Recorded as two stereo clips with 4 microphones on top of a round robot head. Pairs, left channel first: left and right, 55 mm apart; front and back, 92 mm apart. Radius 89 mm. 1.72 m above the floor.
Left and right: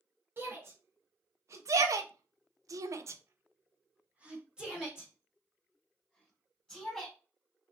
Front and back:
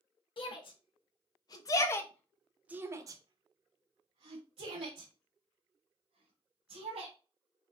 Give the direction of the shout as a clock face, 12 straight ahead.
1 o'clock.